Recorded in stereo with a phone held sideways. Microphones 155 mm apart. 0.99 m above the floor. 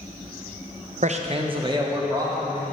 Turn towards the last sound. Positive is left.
turn(degrees=-25)  # may be behind; listen again after turning